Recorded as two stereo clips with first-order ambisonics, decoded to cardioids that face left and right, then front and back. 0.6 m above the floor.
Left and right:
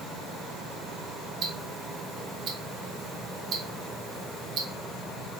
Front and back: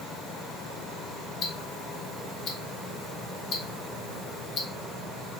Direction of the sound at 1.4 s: 50° right.